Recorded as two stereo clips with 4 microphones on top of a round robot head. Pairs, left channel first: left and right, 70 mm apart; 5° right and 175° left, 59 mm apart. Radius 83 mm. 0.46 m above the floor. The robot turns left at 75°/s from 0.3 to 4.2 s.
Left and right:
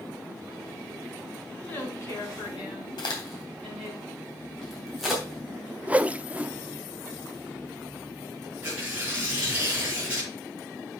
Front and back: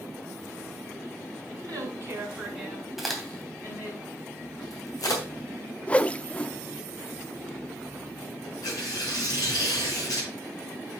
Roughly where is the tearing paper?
Ahead.